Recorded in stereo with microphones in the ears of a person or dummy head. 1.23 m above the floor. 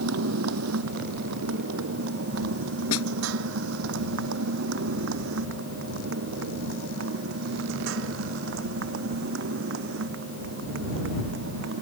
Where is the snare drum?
85° left.